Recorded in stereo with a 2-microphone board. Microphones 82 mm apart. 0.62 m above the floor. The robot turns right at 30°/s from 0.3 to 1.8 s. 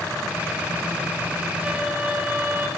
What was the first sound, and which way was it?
A violin, 15° right (ahead or behind).